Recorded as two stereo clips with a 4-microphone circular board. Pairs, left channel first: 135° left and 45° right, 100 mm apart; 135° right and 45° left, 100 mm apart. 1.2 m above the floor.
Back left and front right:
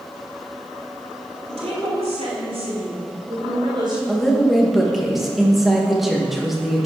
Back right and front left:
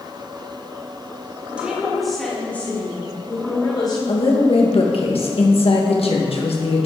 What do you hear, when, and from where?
1.5 s a woman speaking: 30° right, 3 m; by 4.0 s 90° right, 3.5 m
4.1 s a woman speaking: 130° right, 1.7 m